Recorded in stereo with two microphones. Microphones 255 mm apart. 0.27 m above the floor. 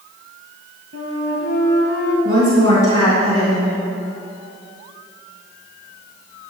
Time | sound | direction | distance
0.9 | a flute | 60° right (ahead or behind) | 2.5 m
2.2 | a woman speaking | 60° right (ahead or behind) | 3 m